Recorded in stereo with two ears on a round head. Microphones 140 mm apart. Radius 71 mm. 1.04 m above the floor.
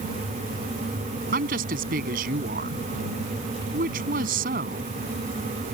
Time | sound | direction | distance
1.3 | a woman speaking | 55° right (ahead or behind) | ?